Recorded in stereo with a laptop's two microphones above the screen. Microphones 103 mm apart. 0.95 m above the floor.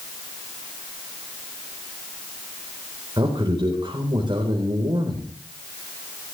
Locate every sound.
3.2 s a man speaking: 50° right (ahead or behind), 3.5 m